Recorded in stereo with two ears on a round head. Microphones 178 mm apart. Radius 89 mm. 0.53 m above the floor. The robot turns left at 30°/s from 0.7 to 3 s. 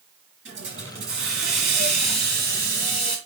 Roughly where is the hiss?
Right.